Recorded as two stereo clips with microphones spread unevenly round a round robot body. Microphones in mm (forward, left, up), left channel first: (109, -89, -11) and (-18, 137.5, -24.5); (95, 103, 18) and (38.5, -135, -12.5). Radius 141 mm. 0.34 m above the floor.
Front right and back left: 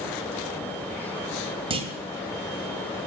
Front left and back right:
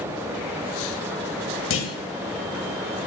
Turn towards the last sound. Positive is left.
turn(degrees=60)